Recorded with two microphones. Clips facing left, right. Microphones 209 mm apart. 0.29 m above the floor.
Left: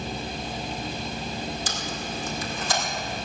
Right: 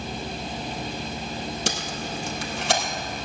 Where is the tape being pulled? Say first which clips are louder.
Right 2 dB; 75° right (ahead or behind), 1.9 m.